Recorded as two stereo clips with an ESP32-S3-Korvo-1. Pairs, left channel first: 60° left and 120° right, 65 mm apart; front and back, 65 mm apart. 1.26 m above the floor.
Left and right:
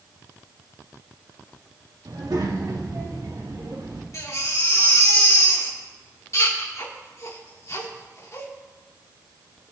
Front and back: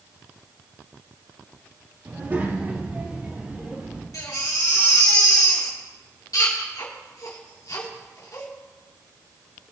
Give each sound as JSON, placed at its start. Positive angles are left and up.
{"t": 2.0, "sound": "a child speaking", "azimuth_deg": -125, "distance_m": 2.0}
{"t": 4.1, "sound": "a baby crying", "azimuth_deg": 20, "distance_m": 3.0}